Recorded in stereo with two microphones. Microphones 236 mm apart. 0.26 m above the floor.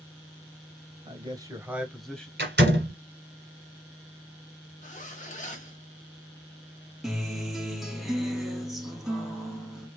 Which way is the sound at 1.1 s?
25° right (ahead or behind).